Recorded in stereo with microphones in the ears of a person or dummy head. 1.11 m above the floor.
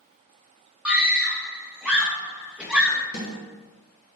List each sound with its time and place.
0.8 s a scream: centre (ahead or behind), 0.6 m
3.1 s a snare drum: 50° left (ahead or behind), 1.1 m